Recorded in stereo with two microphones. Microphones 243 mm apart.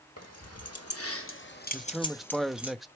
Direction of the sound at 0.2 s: 80° left.